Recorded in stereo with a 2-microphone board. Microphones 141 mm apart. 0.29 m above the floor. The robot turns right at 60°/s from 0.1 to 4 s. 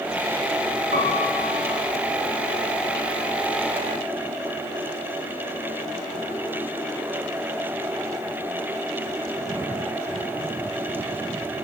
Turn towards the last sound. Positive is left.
turn(degrees=75)